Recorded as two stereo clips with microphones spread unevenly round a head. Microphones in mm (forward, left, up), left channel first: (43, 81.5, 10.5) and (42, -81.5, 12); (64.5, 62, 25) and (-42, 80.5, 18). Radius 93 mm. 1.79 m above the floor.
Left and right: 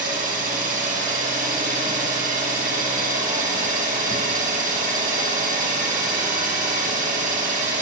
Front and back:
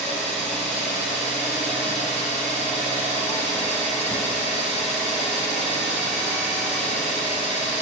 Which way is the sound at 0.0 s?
55° right.